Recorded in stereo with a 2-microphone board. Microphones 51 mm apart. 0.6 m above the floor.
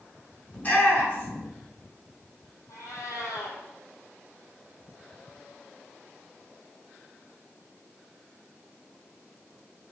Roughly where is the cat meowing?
Left.